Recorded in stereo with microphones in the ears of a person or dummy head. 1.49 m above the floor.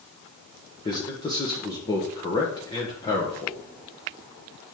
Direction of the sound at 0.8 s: 30° left (ahead or behind).